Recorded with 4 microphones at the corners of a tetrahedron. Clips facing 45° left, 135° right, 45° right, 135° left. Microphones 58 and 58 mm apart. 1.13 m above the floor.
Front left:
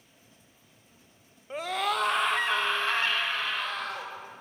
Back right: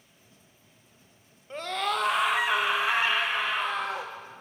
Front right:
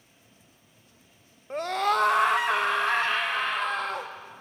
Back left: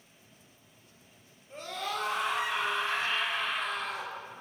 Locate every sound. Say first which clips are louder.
1.5 s a scream: even, front right 11 dB; 35° right, 1.4 m; by 4.1 s 70° right, 2.5 m